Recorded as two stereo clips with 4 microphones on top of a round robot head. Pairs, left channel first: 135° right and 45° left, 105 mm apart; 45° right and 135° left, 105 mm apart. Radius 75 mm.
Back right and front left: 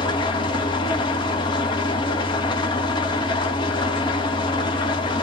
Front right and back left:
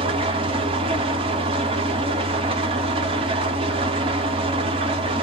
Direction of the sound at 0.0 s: 175° left.